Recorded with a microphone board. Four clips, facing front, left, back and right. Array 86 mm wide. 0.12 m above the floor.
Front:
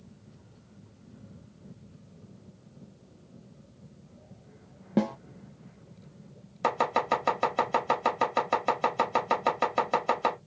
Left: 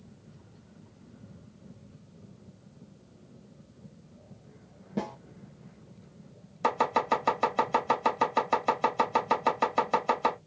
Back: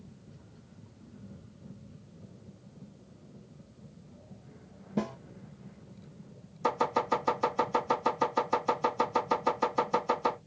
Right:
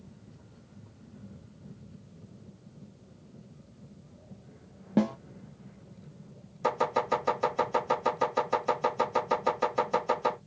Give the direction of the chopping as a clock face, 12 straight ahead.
11 o'clock.